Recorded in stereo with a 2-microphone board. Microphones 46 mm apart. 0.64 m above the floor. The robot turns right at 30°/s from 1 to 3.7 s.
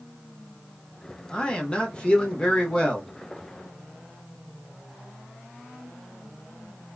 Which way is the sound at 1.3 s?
20° left (ahead or behind).